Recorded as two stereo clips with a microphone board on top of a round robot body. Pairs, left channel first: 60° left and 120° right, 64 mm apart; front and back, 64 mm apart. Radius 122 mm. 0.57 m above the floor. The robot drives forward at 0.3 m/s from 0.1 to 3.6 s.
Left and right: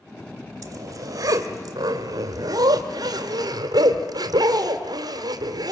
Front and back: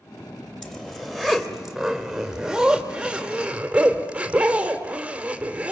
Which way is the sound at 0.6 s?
80° right.